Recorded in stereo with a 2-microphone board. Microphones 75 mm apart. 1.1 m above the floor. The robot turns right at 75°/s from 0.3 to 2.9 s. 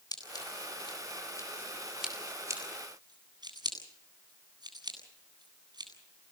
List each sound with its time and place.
0.1 s scissors: 60° left (ahead or behind), 8.5 m; by 5.9 s 75° right (ahead or behind), 8.5 m